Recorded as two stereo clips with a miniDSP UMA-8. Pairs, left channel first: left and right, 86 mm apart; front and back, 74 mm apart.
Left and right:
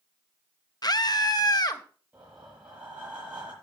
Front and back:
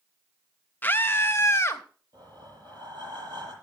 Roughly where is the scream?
Ahead left.